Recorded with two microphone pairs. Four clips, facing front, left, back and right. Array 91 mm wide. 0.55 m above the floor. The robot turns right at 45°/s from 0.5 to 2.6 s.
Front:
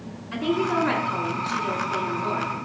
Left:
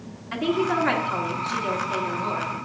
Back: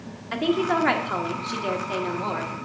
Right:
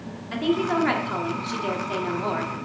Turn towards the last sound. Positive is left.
turn(degrees=-100)